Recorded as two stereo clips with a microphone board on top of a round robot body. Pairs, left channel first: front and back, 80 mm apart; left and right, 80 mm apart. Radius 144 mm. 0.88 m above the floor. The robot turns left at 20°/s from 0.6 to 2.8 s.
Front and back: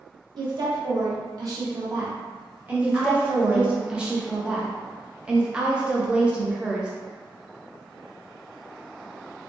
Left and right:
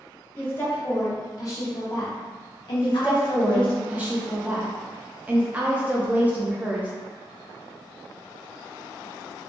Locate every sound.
0.4 s a woman speaking: 155° left, 1.1 m; by 3.8 s 110° left, 1.1 m
2.8 s a woman speaking: 120° right, 0.6 m